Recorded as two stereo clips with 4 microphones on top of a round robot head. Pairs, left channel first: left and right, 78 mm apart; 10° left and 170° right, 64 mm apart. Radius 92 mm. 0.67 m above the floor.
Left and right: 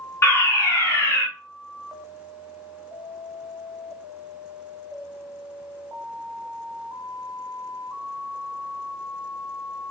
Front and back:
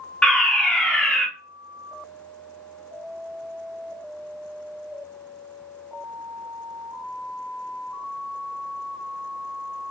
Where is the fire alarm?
80° left, 1.8 m.